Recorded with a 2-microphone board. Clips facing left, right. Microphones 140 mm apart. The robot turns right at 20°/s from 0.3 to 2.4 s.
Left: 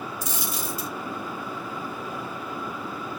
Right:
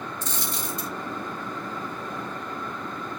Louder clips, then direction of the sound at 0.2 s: Even; 10° left (ahead or behind).